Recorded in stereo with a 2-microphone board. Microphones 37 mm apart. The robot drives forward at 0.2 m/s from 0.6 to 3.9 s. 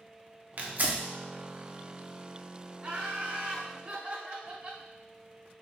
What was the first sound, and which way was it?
Tearing paper, 45° right (ahead or behind).